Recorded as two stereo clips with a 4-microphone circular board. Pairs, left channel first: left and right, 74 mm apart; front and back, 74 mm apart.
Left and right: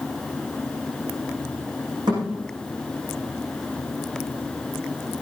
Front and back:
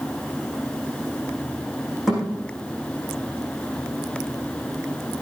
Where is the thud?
95° right, 9.5 m.